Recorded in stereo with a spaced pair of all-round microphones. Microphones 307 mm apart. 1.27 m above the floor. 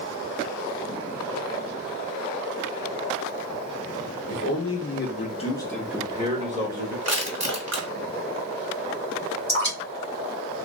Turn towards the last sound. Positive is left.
turn(degrees=35)  # may be behind; listen again after turning